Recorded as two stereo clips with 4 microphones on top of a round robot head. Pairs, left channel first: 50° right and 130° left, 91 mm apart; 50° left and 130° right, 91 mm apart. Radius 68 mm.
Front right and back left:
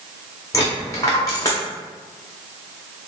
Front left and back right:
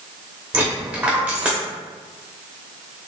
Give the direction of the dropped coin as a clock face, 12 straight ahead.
2 o'clock.